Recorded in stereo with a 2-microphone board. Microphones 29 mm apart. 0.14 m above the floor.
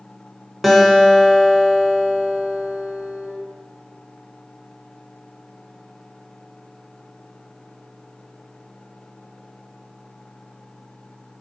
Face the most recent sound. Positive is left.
turn(degrees=-10)  # may be behind; listen again after turning